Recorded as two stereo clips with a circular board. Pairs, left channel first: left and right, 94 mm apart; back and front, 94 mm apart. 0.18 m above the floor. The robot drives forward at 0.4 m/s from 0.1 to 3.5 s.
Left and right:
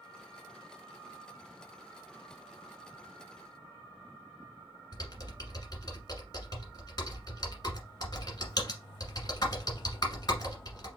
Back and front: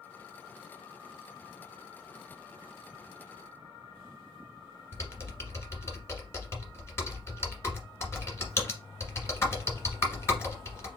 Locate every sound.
4.9 s typing on a keyboard: 125° left, 1.4 m